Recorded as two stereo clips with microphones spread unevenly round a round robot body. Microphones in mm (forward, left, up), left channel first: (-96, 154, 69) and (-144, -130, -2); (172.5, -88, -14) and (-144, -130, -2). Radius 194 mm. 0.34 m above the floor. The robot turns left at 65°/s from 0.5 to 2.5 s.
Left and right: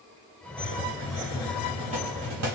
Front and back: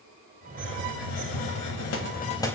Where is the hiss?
50° left, 0.8 m; by 2.6 s 75° right, 0.8 m.